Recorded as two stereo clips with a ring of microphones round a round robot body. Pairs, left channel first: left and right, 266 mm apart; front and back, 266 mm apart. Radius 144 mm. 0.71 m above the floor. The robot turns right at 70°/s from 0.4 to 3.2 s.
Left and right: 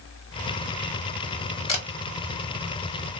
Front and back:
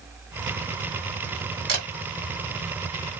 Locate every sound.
1.7 s a camera shutter: 155° left, 1.9 m; by 1.9 s 165° left, 1.9 m